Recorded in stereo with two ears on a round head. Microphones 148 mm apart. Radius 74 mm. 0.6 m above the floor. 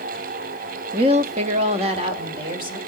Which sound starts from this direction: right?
A woman speaking, at 0.9 s.